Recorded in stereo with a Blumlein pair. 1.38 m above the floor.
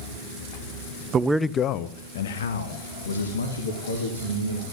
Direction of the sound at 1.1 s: 25° right.